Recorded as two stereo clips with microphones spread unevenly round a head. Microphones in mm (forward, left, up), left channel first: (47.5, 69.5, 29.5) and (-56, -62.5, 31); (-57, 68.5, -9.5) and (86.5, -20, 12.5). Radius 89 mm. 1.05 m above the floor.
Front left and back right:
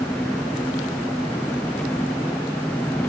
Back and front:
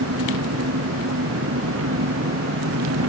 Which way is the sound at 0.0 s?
30° right.